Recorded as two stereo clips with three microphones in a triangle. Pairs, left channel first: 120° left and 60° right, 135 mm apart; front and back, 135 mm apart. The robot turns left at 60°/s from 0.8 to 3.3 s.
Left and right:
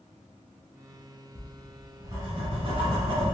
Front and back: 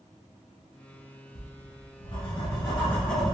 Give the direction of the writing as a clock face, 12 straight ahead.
11 o'clock.